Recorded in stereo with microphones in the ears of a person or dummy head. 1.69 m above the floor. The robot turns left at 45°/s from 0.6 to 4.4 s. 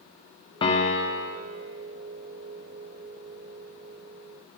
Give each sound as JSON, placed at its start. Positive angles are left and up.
{"t": 0.6, "sound": "a piano", "azimuth_deg": 160, "distance_m": 0.9}